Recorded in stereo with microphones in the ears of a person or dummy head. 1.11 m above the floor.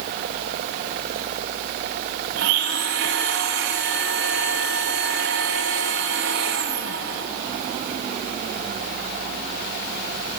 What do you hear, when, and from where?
2.4 s a blender: 65° right (ahead or behind), 1.7 m